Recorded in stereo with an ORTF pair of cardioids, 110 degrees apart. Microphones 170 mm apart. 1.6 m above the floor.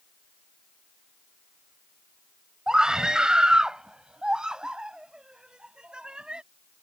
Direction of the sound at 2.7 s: 5° right.